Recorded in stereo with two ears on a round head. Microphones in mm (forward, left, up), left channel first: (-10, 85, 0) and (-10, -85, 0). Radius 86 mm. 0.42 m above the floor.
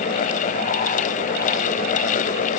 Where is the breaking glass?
I don't hear breaking glass.